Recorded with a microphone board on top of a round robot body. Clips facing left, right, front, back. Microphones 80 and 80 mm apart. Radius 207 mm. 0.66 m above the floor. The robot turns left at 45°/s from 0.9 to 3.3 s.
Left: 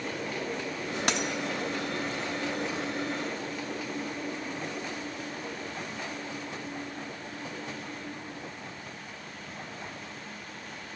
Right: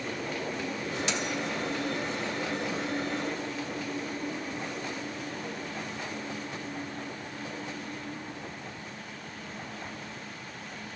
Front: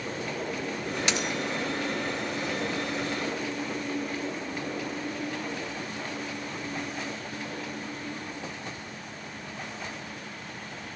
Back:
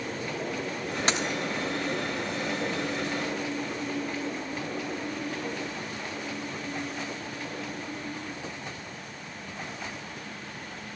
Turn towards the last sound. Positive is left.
turn(degrees=25)